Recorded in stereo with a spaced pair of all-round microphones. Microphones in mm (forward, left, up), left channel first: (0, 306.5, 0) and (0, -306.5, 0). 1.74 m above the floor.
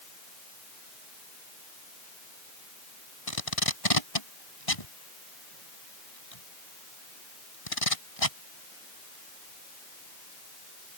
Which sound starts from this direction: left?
Tape being pulled, at 3.3 s.